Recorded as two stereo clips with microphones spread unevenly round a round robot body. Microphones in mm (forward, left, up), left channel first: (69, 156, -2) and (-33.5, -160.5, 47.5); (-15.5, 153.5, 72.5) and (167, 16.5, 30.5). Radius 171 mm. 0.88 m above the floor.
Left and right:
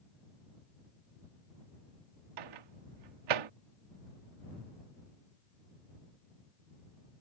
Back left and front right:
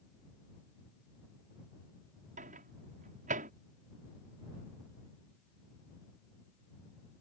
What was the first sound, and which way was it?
A microwave, 100° right.